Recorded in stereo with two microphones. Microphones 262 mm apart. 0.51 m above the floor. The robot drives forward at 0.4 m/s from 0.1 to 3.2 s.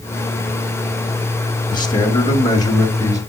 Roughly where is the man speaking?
Centre.